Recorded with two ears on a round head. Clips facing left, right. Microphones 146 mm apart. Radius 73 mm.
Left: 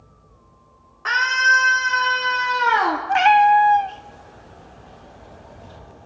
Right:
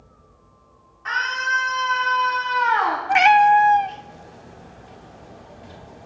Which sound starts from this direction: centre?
A cat meowing, at 3.1 s.